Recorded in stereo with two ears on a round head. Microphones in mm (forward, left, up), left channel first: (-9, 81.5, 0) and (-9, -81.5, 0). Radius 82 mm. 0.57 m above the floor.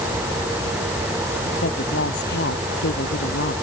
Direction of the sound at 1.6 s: 60° left (ahead or behind).